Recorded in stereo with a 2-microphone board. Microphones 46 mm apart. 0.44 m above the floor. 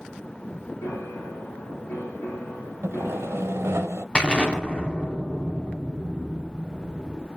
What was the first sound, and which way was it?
A piano, 80° left.